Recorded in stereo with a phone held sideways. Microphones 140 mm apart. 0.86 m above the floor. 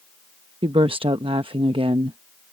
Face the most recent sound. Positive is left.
turn(degrees=-40)  # may be behind; listen again after turning